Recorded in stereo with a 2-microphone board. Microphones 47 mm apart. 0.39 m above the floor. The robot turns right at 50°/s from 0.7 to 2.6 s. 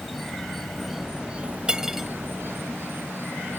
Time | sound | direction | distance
0.0 | an insect | 175° left | ?
1.7 | cutlery clinking | 20° right (ahead or behind) | ?